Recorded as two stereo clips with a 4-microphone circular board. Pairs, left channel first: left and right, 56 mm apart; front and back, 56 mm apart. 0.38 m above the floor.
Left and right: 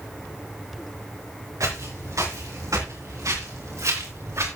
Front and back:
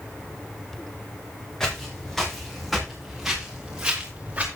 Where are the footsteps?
80° right, 5.5 m; by 4.5 s 115° right, 3.5 m.